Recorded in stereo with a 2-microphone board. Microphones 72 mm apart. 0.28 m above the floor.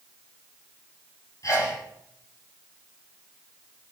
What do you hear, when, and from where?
1.4 s a sneeze: 55° left (ahead or behind), 8.5 m